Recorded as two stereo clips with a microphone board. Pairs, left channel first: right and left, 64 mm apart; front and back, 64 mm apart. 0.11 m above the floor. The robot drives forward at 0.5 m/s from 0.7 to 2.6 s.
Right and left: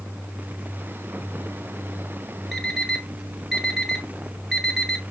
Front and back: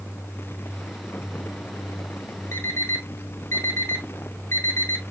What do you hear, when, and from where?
2.5 s an alarm clock: straight ahead, 1.1 m